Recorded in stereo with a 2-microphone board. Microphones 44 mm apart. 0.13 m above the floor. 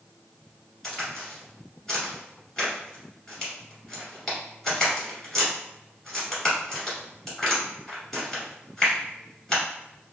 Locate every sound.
0.8 s a crack: 10° left (ahead or behind), 1.7 m